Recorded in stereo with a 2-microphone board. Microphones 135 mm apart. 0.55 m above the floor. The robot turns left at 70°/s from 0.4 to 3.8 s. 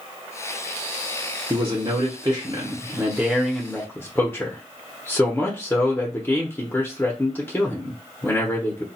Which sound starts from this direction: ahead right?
A man speaking, at 1.5 s.